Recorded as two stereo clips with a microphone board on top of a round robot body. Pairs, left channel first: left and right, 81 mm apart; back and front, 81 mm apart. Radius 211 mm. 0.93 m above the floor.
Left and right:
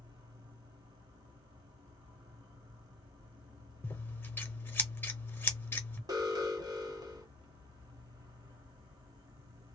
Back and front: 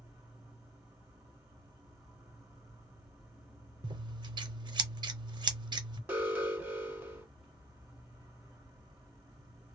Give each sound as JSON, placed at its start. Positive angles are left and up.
{"t": 0.0, "sound": "an insect", "azimuth_deg": -80, "distance_m": 1.2}
{"t": 3.8, "sound": "scissors", "azimuth_deg": 25, "distance_m": 0.6}
{"t": 6.1, "sound": "an alarm", "azimuth_deg": -70, "distance_m": 1.7}